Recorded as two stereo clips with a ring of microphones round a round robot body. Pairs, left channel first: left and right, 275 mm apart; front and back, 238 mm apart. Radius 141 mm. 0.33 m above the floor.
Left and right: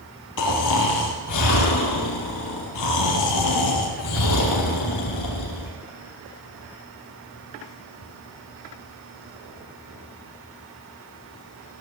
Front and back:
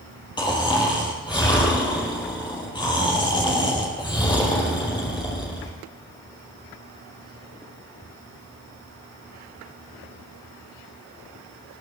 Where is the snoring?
70° left, 4.5 m.